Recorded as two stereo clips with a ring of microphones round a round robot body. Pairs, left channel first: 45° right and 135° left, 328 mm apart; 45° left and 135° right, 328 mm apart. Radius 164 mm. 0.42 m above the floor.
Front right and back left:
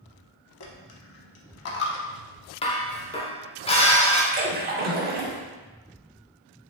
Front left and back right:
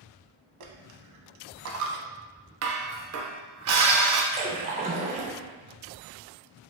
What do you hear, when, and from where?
0.6 s a dropped coin: 95° right, 0.5 m
2.6 s dishes clattering: 115° right, 0.6 m
4.3 s a splash: 175° left, 0.6 m